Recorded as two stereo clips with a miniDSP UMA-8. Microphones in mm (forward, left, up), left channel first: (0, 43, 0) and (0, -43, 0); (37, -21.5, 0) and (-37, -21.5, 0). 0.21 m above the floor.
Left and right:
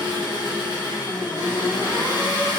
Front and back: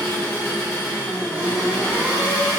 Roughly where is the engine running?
Left.